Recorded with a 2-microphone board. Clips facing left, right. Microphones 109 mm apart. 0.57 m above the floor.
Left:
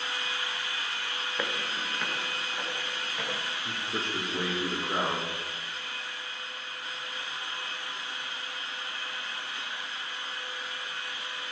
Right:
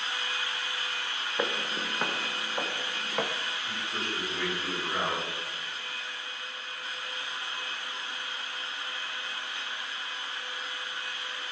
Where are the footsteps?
20° right (ahead or behind), 1.4 m; by 3.3 s 60° right (ahead or behind), 3 m.